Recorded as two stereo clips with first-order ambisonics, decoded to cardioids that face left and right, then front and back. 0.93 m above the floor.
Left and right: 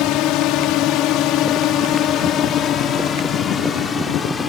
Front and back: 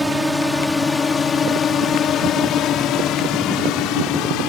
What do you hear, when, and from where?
0.0 s a drone: 95° left; by 4.5 s 20° left